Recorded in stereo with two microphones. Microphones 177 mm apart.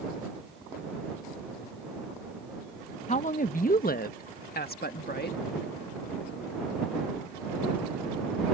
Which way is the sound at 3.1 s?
45° left (ahead or behind).